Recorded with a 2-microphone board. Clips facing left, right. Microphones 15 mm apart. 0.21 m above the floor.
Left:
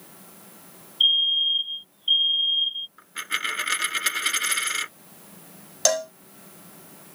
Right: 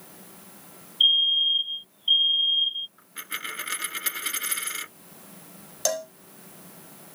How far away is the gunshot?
No gunshot in this recording.